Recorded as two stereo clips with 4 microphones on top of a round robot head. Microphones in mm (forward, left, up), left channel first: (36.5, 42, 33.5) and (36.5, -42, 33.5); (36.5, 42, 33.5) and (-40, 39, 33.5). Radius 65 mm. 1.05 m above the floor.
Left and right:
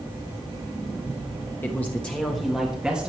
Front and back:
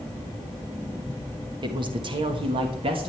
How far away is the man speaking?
About 1.2 m.